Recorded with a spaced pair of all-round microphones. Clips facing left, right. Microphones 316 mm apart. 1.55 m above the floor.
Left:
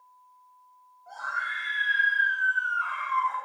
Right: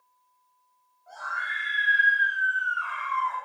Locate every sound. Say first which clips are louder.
1.1 s a scream: even; 60° left (ahead or behind), 9 m